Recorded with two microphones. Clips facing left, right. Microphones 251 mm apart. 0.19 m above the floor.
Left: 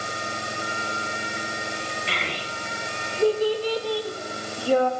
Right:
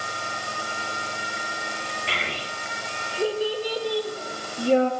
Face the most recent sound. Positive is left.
turn(degrees=-25)  # may be behind; listen again after turning